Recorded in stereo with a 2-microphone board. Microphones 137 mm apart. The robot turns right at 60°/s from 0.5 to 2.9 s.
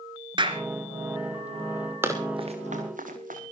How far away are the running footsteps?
About 6 m.